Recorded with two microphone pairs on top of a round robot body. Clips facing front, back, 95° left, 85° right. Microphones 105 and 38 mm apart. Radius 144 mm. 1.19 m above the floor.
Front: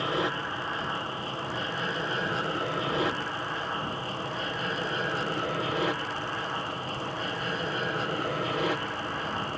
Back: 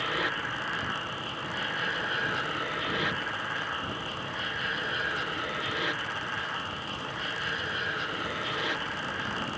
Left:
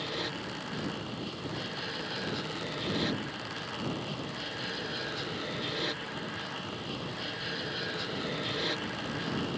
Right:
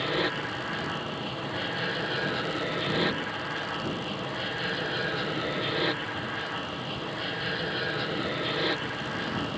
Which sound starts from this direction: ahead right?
An aircraft, at 0.0 s.